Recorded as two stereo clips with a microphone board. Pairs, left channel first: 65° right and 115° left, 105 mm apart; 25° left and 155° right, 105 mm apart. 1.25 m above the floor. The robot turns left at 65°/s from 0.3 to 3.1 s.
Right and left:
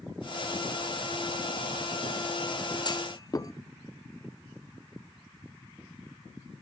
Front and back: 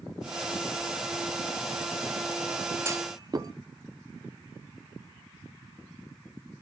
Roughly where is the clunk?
Right.